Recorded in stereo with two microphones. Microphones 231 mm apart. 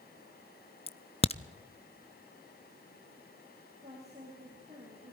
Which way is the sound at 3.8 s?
25° right (ahead or behind).